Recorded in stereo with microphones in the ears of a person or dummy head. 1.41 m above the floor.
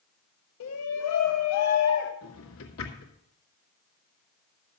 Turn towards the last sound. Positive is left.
turn(degrees=75)  # may be behind; listen again after turning